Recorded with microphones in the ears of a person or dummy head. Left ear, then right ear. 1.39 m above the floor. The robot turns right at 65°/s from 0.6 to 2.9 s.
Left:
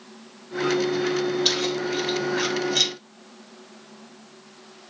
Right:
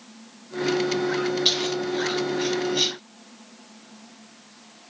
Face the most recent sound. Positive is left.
turn(degrees=70)  # may be behind; listen again after turning